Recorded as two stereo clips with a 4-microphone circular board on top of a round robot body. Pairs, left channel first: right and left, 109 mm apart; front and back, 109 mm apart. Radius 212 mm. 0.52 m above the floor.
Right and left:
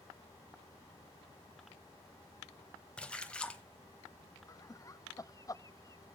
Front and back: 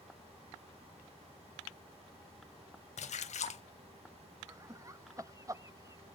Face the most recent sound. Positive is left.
turn(degrees=-135)